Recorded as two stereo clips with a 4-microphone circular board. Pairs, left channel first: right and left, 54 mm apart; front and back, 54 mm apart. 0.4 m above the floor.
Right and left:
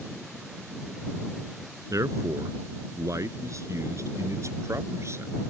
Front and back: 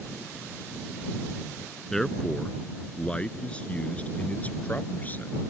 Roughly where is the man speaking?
Left.